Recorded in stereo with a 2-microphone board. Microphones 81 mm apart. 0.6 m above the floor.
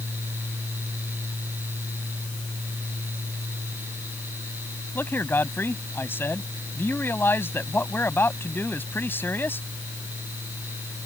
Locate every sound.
5.0 s a man speaking: 25° left (ahead or behind)